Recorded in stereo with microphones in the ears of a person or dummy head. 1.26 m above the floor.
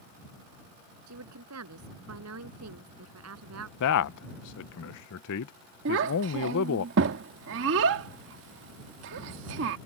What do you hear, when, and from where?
1.1 s a woman speaking: 90° right; by 3.7 s 85° right
3.8 s a man speaking: 70° left (ahead or behind)
5.8 s a child speaking: 65° right (ahead or behind)